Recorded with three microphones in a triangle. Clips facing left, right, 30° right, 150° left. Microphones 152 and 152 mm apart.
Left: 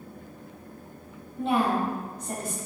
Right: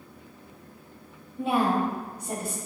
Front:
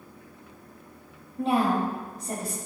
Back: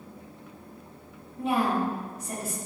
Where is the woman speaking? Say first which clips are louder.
Even, front 2 dB; 20° right, 1.5 m.